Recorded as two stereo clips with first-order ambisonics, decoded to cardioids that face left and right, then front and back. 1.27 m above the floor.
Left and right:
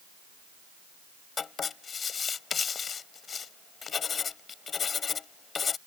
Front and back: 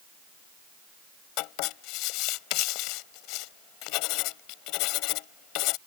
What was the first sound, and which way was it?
Writing, 20° left.